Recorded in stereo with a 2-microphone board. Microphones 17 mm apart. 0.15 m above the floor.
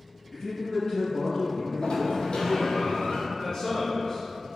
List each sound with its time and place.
0.3 s a man speaking: 35° left (ahead or behind), 1.8 m
1.8 s a sliding door: 80° left, 1.1 m
3.3 s a man speaking: 25° left (ahead or behind), 1.3 m